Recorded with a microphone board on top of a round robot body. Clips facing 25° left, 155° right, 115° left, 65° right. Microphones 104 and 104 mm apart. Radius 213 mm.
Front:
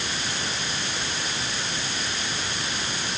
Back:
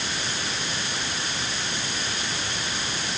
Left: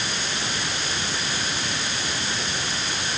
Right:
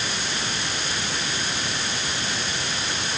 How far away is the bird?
I don't hear a bird.